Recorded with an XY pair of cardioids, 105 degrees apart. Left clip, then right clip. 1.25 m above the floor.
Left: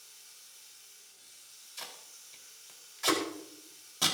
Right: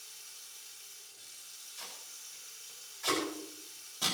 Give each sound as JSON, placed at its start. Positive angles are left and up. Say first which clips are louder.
{"t": 0.0, "sound": "running water", "louder": "right 4 dB", "azimuth_deg": -40, "distance_m": 5.0}
{"t": 1.8, "sound": "tape being pulled", "louder": "left 3 dB", "azimuth_deg": 40, "distance_m": 4.5}